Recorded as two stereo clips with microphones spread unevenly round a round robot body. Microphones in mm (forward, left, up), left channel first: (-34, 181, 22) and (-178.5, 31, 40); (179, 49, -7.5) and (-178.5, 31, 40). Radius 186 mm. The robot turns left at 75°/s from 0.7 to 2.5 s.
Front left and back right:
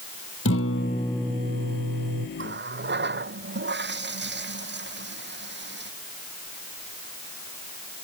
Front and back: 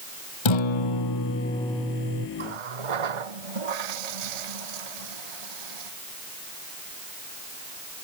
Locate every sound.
0.5 s a guitar: 10° right; by 2.3 s 125° right
2.4 s a running tap: 155° right; by 5.9 s 165° right